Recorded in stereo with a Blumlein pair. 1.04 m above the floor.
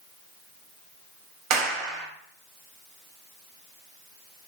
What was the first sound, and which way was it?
A clap, 40° right.